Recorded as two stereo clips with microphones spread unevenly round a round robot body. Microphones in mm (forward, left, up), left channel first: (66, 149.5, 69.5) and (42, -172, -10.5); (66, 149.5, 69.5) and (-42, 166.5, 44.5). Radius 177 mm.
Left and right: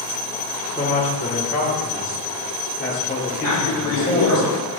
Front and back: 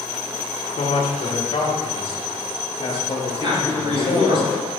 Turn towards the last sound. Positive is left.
turn(degrees=130)